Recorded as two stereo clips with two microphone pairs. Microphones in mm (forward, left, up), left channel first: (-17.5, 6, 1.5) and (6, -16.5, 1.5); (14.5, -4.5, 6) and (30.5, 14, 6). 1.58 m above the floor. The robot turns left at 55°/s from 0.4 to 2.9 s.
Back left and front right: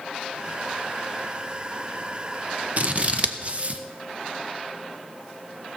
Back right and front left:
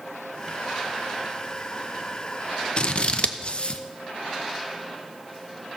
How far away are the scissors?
About 0.7 m.